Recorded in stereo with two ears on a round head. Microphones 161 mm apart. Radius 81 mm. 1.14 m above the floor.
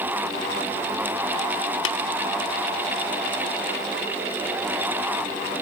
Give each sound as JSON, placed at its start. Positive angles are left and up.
{"t": 1.9, "sound": "tapping", "side_deg": 80, "distance_m": 1.3}